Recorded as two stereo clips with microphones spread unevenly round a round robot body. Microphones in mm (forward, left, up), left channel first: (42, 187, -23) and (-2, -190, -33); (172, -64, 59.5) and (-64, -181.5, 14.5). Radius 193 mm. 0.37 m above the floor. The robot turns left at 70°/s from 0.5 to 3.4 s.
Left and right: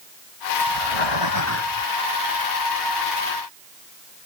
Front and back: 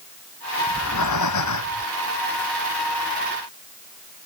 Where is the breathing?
95° left; by 1.9 s 10° left.